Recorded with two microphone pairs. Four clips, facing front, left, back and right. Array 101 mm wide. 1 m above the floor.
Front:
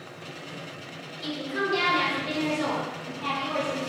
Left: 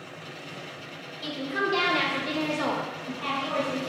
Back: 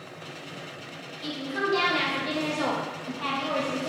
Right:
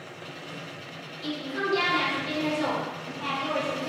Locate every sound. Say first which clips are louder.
1.2 s a woman speaking: left 1 dB, even; 85° left, 1.2 m; by 3.9 s 165° right, 1.0 m